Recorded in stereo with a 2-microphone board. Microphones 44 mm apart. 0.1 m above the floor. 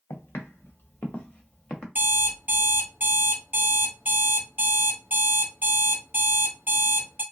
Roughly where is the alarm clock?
Right.